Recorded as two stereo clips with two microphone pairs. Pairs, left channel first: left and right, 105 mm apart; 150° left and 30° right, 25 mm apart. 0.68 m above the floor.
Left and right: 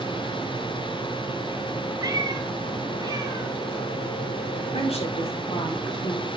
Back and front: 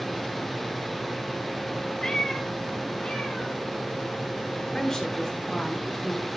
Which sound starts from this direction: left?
A woman speaking, at 4.7 s.